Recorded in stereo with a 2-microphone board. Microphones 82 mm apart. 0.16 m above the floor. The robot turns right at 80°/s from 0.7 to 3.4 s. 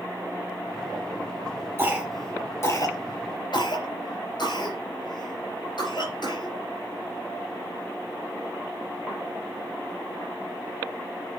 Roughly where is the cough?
Right.